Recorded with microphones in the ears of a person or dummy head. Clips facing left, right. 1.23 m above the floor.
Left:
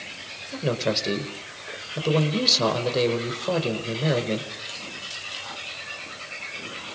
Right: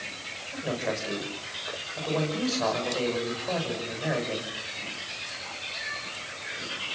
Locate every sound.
0.5 s a man speaking: 55° left (ahead or behind), 4.5 m